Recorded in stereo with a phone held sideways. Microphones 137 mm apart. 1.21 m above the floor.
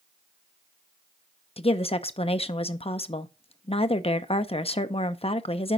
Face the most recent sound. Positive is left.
turn(degrees=45)  # may be behind; listen again after turning